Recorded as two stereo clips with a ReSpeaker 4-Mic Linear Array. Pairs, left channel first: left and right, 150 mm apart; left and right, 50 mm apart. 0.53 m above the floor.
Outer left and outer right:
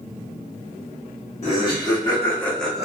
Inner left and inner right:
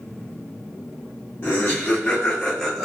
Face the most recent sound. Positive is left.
turn(degrees=-5)  # may be behind; listen again after turning